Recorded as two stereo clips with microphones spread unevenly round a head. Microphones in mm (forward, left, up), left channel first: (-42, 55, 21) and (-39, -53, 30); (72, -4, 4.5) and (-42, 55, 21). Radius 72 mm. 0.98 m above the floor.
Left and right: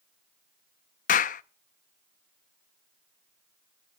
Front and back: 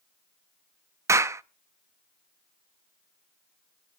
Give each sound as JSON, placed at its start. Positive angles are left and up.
{"t": 1.1, "sound": "a clap", "azimuth_deg": 85, "distance_m": 0.7}